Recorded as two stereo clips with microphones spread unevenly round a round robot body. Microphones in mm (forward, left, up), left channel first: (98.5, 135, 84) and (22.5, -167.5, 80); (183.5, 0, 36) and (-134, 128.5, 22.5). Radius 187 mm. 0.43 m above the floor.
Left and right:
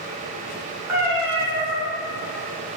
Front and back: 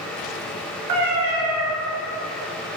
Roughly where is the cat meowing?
Behind.